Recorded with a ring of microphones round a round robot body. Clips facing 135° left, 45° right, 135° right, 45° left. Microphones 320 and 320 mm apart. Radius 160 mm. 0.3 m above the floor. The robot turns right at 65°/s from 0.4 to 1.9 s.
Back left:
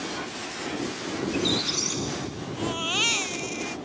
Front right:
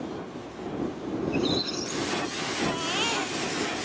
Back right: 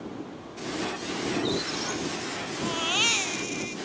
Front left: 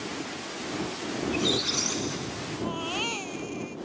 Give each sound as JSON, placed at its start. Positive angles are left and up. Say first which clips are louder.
{"t": 1.2, "sound": "a squeak", "louder": "even, even", "azimuth_deg": 55}
{"t": 2.6, "sound": "a baby crying", "louder": "front right 1 dB, even", "azimuth_deg": 180}